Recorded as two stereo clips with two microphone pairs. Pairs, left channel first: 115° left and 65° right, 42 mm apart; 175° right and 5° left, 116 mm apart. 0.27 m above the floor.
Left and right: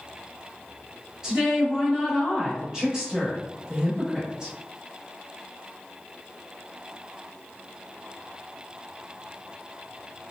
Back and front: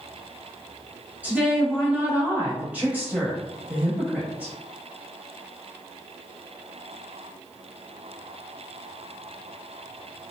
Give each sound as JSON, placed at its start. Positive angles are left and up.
{"t": 1.2, "sound": "a woman speaking", "azimuth_deg": -40, "distance_m": 1.1}